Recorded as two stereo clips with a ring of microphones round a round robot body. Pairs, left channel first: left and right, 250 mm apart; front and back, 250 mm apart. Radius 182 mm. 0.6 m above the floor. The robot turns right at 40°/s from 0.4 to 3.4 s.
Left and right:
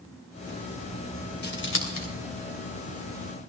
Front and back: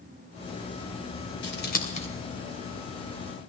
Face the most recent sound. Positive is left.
turn(degrees=120)